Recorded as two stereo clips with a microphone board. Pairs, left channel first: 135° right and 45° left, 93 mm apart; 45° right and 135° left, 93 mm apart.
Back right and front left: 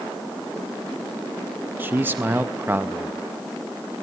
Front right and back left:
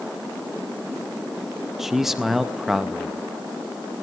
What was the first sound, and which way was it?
A man speaking, 55° left.